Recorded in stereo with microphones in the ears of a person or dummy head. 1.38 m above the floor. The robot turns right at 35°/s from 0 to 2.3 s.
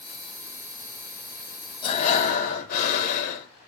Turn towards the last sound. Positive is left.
turn(degrees=55)  # may be behind; listen again after turning